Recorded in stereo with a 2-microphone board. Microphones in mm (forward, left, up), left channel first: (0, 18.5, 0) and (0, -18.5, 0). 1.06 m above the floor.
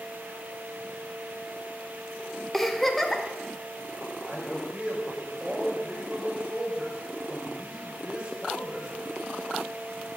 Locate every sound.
2.5 s a giggle: 5° left (ahead or behind), 1.2 m
4.3 s a man speaking: 30° right (ahead or behind), 4.5 m